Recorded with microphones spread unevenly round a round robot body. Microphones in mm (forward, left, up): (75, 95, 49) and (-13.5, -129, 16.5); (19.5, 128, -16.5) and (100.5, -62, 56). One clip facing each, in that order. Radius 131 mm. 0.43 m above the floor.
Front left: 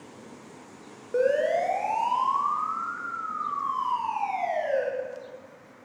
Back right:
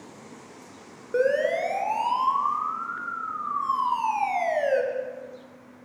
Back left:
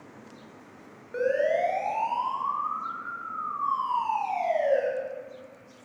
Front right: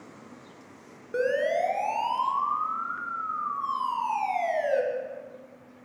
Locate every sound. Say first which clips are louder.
1.1 s a siren: back right 1 dB, back left 1 dB; 40° right, 4.5 m; by 4.8 s 100° right, 6 m